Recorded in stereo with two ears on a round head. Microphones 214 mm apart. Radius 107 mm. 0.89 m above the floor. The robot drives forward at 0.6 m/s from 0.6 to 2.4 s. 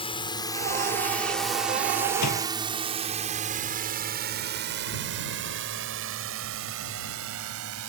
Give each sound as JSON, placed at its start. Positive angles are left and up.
{"t": 0.0, "sound": "a drone", "side_deg": 25}
{"t": 2.2, "sound": "a door slam", "side_deg": 80}